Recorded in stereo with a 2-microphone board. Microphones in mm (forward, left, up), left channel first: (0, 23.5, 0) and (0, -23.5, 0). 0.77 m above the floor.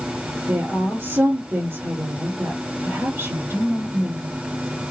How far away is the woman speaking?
About 3 m.